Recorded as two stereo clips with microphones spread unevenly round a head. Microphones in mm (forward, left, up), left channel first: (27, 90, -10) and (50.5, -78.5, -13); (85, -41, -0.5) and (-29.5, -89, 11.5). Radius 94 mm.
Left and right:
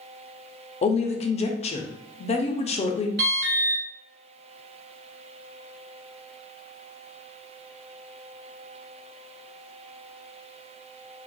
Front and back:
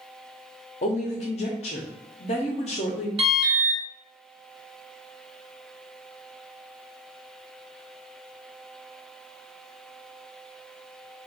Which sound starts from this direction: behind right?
An alarm, at 3.2 s.